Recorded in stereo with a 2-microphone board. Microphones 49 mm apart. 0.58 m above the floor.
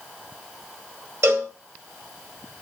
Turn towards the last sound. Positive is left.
turn(degrees=-65)  # may be behind; listen again after turning